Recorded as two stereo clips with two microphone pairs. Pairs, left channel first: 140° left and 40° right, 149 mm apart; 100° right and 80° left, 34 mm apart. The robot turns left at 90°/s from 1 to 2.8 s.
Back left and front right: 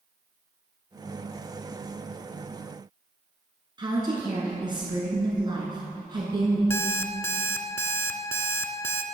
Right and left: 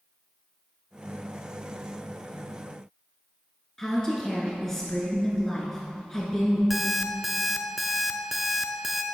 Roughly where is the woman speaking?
Ahead right.